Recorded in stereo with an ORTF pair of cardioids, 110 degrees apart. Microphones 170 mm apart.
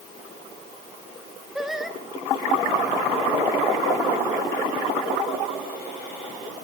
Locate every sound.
1.6 s singing: straight ahead, 2.5 m